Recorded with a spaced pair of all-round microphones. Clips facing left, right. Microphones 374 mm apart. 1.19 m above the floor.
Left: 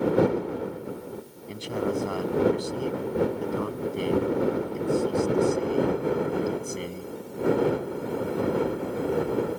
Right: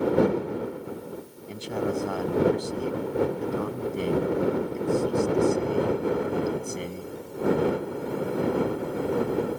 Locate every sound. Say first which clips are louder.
1.5 s a man speaking: even; centre (ahead or behind)